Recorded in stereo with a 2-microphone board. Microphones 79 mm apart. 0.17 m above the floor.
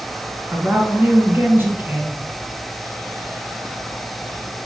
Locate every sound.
0.5 s a woman speaking: 25° right (ahead or behind), 1.8 m